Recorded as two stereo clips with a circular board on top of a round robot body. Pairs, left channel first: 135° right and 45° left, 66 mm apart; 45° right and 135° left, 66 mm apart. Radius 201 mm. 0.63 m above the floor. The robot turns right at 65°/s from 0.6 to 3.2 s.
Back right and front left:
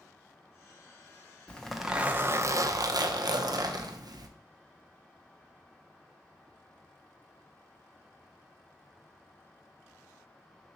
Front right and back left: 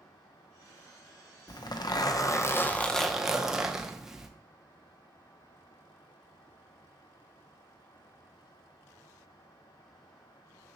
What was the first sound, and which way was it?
A zipper, 60° right.